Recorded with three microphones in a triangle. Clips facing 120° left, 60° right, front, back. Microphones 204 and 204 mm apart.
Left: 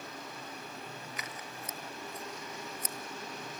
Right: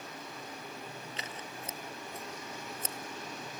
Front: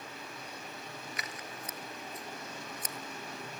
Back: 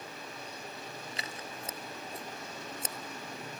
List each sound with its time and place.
1.2 s scissors: 120° right, 0.9 m